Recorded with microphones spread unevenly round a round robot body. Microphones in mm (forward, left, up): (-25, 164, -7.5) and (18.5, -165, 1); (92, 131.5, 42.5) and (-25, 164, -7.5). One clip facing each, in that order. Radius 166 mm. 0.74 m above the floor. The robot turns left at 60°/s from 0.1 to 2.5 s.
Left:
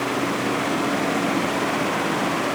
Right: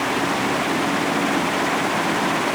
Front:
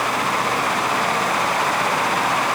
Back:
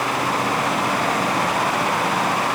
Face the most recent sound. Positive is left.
No sound to turn to.